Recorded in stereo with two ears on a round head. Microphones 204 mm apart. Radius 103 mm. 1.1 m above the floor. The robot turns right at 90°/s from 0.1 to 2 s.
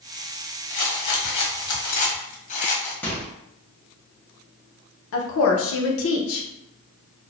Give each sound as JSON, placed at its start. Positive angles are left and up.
{"t": 0.7, "sound": "a rattle", "azimuth_deg": 30, "distance_m": 1.0}
{"t": 3.0, "sound": "a microwave", "side_deg": 10, "distance_m": 0.9}
{"t": 5.1, "sound": "a woman speaking", "side_deg": 60, "distance_m": 0.6}